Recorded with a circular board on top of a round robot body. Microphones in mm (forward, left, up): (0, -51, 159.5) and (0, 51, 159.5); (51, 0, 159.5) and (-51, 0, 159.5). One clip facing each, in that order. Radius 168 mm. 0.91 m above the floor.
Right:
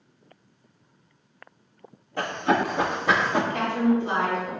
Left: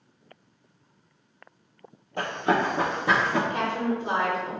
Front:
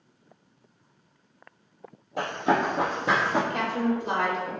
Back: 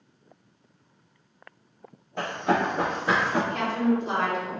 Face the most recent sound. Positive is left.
turn(degrees=20)